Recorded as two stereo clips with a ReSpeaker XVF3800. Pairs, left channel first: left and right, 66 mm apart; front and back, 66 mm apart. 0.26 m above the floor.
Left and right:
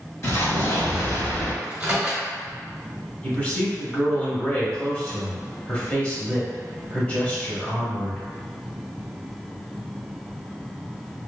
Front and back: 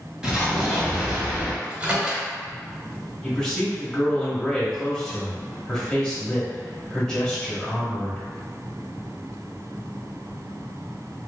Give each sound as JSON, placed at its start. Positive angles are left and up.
{"t": 0.2, "sound": "an explosion", "azimuth_deg": 100, "distance_m": 0.8}
{"t": 1.6, "sound": "a microwave", "azimuth_deg": -135, "distance_m": 0.7}
{"t": 3.2, "sound": "a man speaking", "azimuth_deg": 60, "distance_m": 0.9}